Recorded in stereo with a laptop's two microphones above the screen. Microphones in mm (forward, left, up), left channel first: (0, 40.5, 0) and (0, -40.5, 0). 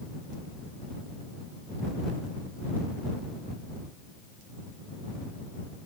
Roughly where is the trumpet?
No trumpet in this recording.